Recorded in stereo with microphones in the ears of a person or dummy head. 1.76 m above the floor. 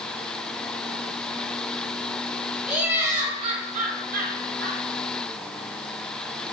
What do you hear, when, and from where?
2.7 s laughter: 5° right (ahead or behind), 1.2 m; by 4.8 s 70° right (ahead or behind), 2 m